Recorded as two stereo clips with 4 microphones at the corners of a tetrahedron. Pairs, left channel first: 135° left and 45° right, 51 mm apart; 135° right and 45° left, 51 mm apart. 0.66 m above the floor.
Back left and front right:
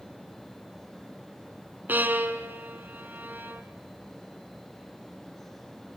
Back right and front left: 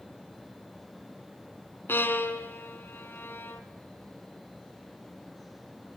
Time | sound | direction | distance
1.9 | a violin | 95° right | 1.6 m